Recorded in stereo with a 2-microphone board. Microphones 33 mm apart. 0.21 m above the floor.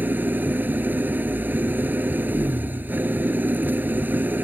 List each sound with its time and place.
0.0 s an engine running: 70° right (ahead or behind)